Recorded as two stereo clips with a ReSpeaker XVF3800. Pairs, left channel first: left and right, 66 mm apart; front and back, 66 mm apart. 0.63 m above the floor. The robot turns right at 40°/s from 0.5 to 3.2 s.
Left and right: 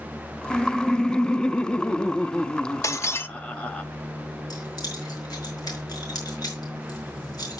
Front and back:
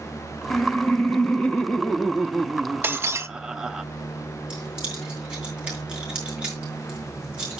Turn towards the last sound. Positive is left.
turn(degrees=105)